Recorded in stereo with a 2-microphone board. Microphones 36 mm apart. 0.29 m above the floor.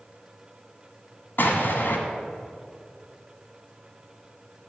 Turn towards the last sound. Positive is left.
turn(degrees=60)  # may be behind; listen again after turning